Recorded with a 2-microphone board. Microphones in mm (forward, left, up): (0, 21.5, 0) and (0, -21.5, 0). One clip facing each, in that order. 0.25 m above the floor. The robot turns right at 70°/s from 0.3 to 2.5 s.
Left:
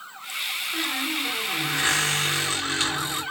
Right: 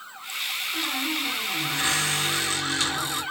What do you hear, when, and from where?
0.7 s a squeak: 20° left, 1.5 m; by 3.2 s 145° left, 1.5 m